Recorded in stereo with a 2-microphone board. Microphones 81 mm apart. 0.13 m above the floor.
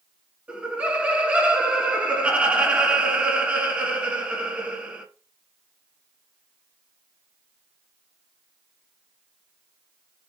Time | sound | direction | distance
0.5 | laughter | 20° right (ahead or behind) | 1.0 m